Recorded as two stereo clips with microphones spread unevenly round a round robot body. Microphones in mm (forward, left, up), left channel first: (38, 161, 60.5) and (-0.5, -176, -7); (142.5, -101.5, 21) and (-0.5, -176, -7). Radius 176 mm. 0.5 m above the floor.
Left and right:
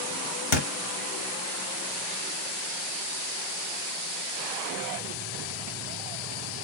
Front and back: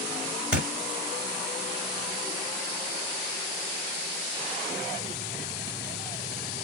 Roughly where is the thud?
Left.